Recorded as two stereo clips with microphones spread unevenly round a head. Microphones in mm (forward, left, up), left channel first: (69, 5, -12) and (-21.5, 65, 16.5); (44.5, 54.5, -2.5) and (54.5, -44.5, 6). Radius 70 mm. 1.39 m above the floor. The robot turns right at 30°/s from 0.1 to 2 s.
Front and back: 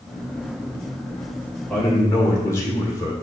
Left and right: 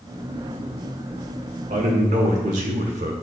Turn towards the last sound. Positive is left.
turn(degrees=-110)